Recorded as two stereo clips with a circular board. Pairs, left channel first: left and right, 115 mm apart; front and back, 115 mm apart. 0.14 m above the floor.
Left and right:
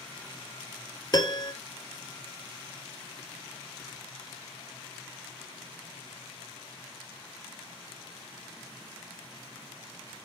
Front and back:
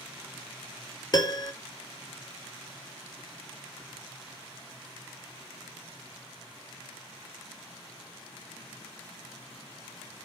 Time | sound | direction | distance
1.1 | a piano | 45° left | 0.5 m